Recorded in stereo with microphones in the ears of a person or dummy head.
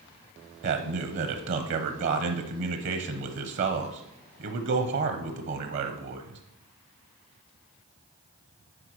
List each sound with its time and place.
0.6 s a man speaking: 60° right (ahead or behind), 0.8 m